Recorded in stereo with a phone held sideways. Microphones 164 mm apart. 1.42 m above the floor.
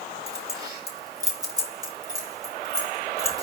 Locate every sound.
0.3 s keys jangling: 20° right (ahead or behind), 4 m